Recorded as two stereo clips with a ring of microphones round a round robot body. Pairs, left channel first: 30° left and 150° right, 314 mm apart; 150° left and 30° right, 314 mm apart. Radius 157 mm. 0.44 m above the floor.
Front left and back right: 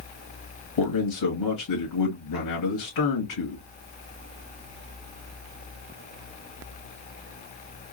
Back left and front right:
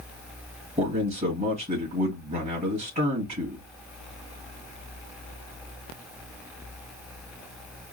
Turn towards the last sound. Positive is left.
turn(degrees=40)